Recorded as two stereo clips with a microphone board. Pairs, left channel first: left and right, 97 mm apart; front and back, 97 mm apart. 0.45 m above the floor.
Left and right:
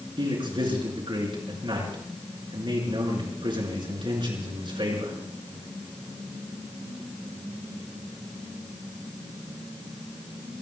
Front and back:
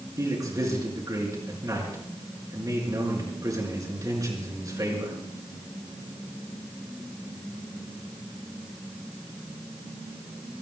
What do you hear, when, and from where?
0.2 s a man speaking: 125° right, 5 m